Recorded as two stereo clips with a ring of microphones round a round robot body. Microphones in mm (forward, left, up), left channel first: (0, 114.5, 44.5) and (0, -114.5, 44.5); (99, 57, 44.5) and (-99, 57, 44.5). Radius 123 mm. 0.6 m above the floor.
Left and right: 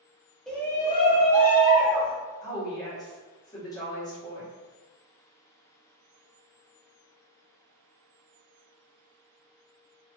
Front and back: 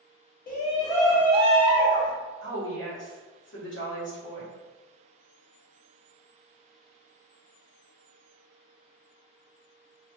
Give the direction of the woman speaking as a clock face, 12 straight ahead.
11 o'clock.